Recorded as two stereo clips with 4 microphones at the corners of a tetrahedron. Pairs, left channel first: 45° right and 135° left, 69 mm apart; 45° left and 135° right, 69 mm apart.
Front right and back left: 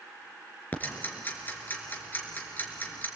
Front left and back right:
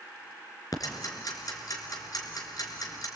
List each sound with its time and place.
0.7 s ticking: 20° left, 3 m